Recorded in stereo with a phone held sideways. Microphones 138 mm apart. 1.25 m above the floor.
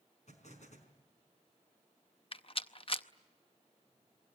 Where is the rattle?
45° left (ahead or behind), 0.7 m.